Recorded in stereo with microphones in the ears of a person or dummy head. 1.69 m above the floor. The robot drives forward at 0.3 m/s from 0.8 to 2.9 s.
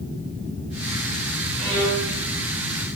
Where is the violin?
5° right (ahead or behind), 1.4 m.